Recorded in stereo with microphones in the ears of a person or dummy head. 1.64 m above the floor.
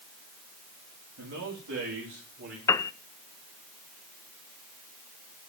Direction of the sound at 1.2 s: 70° right (ahead or behind).